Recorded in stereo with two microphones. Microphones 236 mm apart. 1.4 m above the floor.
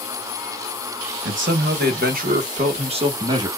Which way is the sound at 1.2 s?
55° right (ahead or behind).